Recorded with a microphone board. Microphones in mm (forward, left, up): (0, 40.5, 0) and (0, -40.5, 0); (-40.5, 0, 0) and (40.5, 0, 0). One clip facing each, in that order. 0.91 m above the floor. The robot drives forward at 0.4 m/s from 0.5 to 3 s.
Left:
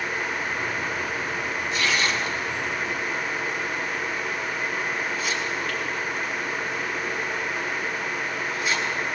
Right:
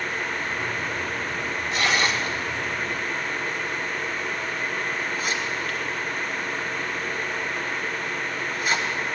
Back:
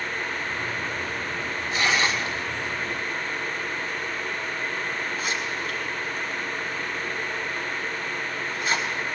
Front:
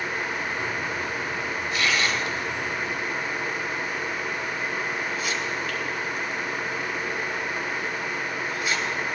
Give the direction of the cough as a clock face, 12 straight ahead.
No cough in this recording.